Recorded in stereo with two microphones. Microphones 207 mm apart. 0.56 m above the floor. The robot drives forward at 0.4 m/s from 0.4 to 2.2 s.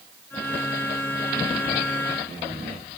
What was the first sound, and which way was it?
Only background noise.